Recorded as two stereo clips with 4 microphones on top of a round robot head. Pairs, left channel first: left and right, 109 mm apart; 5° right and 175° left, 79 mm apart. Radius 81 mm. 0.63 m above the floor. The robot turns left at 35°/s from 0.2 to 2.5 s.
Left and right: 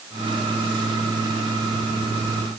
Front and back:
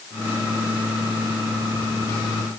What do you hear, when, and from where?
Only background noise.